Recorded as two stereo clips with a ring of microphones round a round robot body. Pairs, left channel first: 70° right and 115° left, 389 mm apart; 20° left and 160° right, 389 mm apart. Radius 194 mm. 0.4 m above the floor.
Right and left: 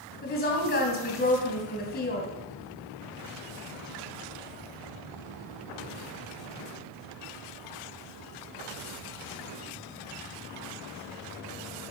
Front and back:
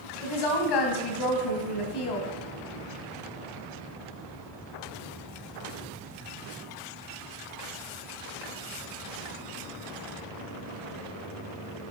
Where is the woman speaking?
Straight ahead, 2.5 m.